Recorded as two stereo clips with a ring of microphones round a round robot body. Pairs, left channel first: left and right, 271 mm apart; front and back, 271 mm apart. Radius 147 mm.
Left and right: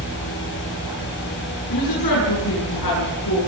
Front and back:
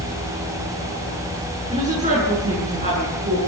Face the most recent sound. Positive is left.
turn(degrees=115)